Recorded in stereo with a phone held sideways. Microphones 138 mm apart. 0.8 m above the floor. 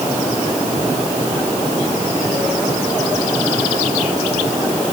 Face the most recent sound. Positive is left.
No sound to turn to.